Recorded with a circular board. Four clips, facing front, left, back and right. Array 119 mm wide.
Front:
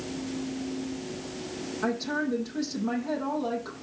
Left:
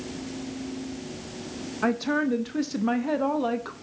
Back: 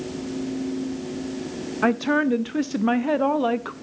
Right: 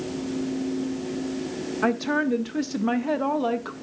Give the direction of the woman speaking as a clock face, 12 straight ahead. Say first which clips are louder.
Right 1 dB, back 9 dB; 6 o'clock.